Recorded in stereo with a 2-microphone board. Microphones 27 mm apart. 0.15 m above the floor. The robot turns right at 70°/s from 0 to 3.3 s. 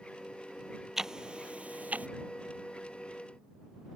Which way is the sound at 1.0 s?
15° right (ahead or behind).